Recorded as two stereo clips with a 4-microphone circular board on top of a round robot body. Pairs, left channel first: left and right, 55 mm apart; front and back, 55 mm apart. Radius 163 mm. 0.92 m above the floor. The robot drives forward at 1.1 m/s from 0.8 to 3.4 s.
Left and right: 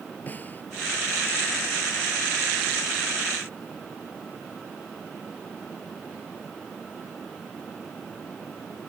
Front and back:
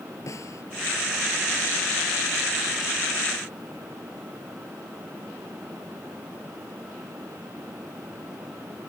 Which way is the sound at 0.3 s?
30° left.